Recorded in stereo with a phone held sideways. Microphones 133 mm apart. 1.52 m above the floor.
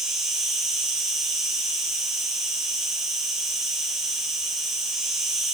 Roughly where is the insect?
Centre.